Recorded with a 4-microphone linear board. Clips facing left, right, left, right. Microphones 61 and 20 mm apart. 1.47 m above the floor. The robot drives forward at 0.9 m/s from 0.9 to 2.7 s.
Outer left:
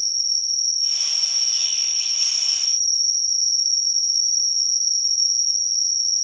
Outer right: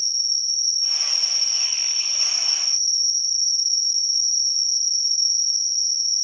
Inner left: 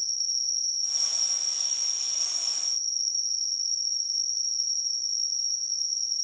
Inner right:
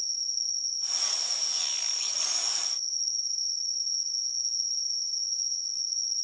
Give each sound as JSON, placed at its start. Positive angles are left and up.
{"t": 0.0, "sound": "an insect", "side_deg": 80, "distance_m": 2.5}